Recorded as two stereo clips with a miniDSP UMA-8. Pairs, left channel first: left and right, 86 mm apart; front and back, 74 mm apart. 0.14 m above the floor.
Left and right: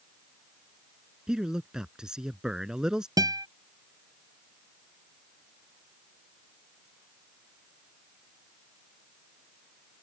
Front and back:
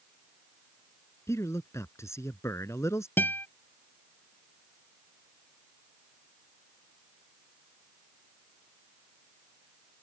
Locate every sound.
1.3 s a man speaking: 15° right
3.2 s a guitar: 60° right